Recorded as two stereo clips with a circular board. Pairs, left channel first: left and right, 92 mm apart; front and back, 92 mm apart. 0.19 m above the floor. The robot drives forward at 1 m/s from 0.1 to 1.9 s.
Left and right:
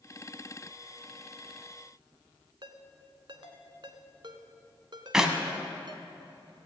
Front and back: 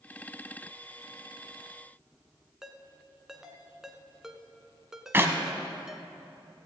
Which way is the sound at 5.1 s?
165° right.